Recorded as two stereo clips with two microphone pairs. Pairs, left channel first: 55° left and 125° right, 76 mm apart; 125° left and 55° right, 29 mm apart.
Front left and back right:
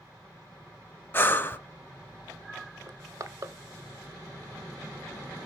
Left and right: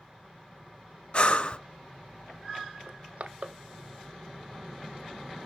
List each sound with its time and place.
1.1 s breathing: 105° left, 0.6 m
2.9 s crushing: 80° right, 0.5 m